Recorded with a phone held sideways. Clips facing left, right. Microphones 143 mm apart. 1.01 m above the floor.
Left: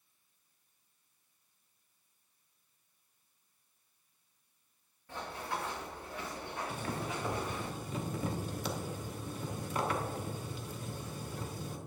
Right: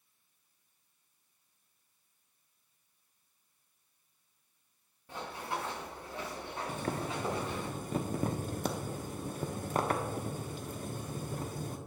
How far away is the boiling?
About 0.9 m.